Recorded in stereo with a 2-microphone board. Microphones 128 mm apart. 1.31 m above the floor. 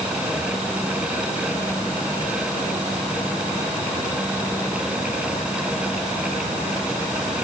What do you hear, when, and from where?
Only background noise.